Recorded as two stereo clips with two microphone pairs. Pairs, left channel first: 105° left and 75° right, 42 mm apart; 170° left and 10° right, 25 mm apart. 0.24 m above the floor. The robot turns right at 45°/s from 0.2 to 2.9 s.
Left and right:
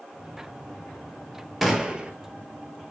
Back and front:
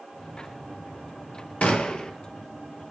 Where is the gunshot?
160° right, 1.4 m; by 2.1 s 140° right, 1.4 m.